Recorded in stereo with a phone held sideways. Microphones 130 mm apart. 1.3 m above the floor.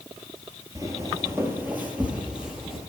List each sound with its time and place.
0.8 s footsteps: 25° right (ahead or behind), 1.6 m; by 2.8 s 5° right (ahead or behind), 2 m